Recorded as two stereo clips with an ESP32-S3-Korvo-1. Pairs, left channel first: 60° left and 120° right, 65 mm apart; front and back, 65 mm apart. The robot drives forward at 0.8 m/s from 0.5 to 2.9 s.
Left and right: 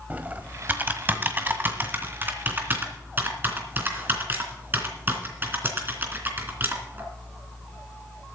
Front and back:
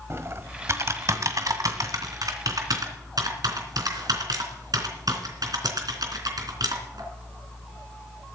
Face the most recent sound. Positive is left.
turn(degrees=-175)